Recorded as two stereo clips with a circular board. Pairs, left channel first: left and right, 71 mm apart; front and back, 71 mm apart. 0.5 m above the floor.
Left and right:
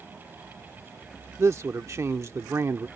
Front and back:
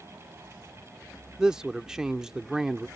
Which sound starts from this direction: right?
A man speaking, at 1.4 s.